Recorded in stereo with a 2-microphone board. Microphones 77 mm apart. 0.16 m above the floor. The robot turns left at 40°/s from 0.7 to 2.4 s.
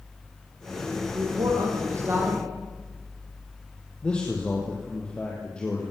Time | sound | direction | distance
1.1 | a man speaking | 105° right | 7.5 m
4.0 | a man speaking | 15° left (ahead or behind) | 4.5 m